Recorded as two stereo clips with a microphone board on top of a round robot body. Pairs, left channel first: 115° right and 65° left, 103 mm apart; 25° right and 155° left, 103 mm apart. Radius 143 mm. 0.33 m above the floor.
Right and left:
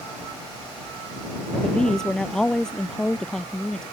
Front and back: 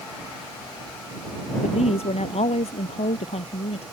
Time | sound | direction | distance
1.6 | a woman speaking | 30° right | ?